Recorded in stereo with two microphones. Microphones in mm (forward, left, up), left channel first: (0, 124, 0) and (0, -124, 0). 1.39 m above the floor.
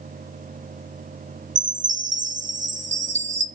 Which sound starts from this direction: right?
A chime, at 1.6 s.